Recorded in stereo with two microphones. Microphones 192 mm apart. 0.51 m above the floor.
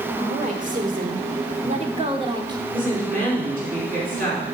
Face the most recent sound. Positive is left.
turn(degrees=-45)  # may be behind; listen again after turning